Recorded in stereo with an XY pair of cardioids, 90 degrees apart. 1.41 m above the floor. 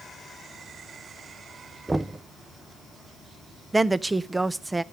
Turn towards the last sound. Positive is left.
turn(degrees=-20)